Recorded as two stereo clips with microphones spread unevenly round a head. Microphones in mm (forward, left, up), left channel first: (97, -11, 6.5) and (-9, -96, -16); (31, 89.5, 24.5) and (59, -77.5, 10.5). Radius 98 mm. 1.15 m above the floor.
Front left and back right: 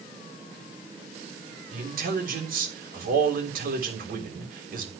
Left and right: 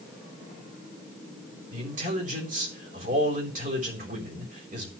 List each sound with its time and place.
1.7 s a man speaking: 135° right, 3.5 m